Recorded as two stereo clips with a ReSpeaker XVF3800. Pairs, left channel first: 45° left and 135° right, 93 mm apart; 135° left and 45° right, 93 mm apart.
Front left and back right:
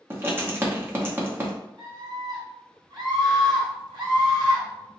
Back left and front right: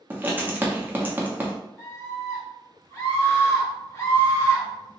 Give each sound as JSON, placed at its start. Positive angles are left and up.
{"t": 0.1, "sound": "writing", "azimuth_deg": -95, "distance_m": 0.8}
{"t": 1.8, "sound": "a scream", "azimuth_deg": -175, "distance_m": 1.9}